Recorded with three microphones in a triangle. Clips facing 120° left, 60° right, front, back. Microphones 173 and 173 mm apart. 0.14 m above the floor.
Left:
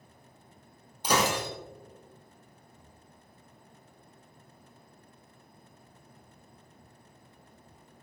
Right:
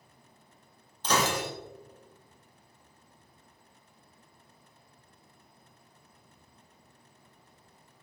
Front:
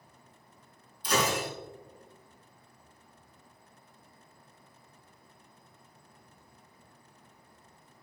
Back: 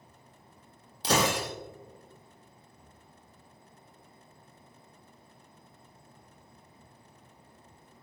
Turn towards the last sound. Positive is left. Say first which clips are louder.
# left 1 dB, back 2 dB
turn(degrees=-160)